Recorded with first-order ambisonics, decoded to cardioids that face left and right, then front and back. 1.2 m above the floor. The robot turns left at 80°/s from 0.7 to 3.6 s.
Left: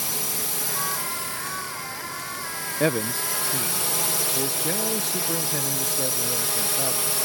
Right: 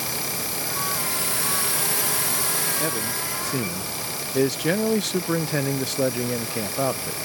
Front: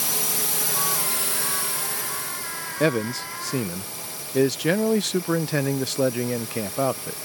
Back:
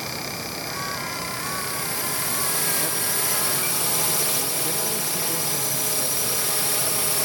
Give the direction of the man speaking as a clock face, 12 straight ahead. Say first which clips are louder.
Left 2 dB, front 3 dB; 11 o'clock.